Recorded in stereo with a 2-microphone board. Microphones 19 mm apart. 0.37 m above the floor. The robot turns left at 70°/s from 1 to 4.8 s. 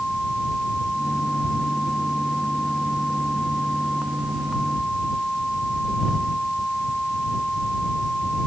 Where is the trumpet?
I don't hear a trumpet.